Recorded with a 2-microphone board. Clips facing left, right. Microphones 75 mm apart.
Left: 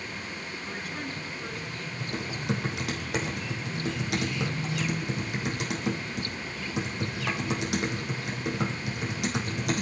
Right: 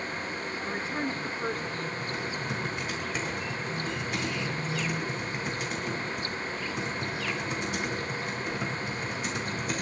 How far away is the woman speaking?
About 1.4 m.